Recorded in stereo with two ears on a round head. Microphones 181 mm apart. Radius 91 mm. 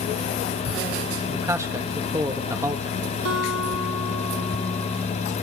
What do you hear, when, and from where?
1.3 s a man speaking: 15° right (ahead or behind), 1.5 m
3.2 s a guitar: 85° right, 9 m